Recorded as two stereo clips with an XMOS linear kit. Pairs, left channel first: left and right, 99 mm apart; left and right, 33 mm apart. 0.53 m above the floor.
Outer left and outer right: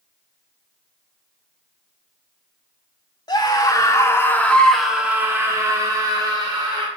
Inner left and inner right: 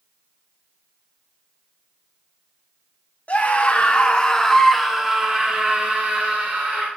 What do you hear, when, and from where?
3.3 s a scream: 50° left (ahead or behind), 1.8 m; by 6.9 s 55° right (ahead or behind), 2 m